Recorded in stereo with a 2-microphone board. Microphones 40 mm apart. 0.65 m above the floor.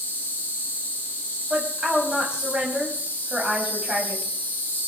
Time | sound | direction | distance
0.0 | an insect | 35° left (ahead or behind) | 6 m
1.5 | a woman speaking | 20° right (ahead or behind) | 4.5 m